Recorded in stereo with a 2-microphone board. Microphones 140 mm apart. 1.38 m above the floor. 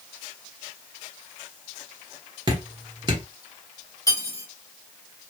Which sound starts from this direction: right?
Dripping, at 2.5 s.